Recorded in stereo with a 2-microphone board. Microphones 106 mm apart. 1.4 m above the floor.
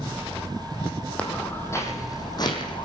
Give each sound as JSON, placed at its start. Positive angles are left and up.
{"t": 1.2, "sound": "footsteps", "side_deg": 10, "distance_m": 2.5}